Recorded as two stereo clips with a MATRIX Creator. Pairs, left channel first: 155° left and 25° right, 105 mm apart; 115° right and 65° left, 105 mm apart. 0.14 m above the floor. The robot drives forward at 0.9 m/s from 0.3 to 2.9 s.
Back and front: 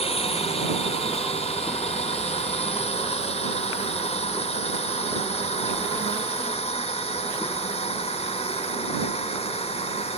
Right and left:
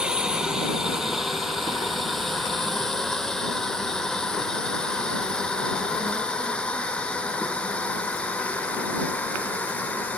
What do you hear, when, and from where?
0.0 s a drone: 150° left; by 10.2 s 170° left